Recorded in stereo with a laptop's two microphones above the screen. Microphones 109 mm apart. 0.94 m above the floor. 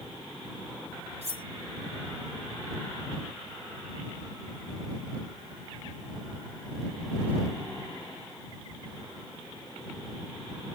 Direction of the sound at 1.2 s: 80° right.